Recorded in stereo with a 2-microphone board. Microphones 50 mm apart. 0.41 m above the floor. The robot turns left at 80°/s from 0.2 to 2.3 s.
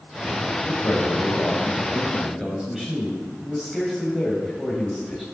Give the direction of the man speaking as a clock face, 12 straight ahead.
8 o'clock.